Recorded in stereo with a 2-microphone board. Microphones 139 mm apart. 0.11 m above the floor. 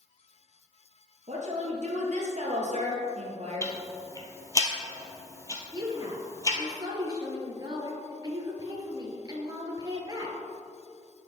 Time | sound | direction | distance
1.3 | a woman speaking | 55° right (ahead or behind) | 2.5 m
3.6 | ticking | 25° left (ahead or behind) | 1.3 m
5.7 | a woman speaking | 25° right (ahead or behind) | 1.8 m